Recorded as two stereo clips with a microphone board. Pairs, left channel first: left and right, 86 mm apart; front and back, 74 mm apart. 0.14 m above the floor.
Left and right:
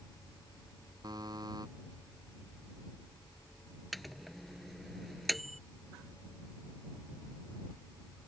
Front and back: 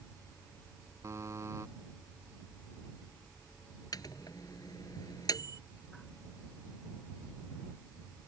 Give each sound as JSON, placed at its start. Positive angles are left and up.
{"t": 1.0, "sound": "a buzzer", "azimuth_deg": -130}
{"t": 3.9, "sound": "a microwave", "azimuth_deg": 0}